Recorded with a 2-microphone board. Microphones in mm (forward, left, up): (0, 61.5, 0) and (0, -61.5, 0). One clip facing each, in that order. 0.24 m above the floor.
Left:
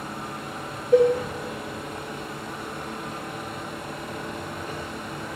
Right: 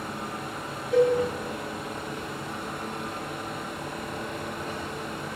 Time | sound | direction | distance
0.9 | a cowbell | 50° left (ahead or behind) | 2 m